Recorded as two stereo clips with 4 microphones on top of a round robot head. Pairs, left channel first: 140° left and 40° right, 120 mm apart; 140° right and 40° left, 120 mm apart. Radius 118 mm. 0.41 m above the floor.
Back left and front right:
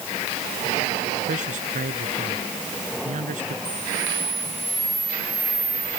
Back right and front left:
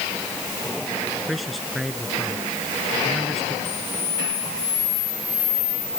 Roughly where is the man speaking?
Ahead right.